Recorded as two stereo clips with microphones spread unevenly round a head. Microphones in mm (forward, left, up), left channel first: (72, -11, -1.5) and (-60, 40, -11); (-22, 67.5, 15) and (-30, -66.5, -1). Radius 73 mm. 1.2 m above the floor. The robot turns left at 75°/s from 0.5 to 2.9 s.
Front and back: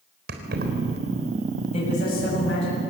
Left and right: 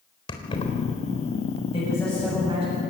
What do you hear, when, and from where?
0.3 s keys jangling: 140° left, 3.5 m; by 0.7 s 125° left, 3.5 m
1.7 s a man speaking: 30° left, 7.5 m; by 2.8 s 50° right, 7.5 m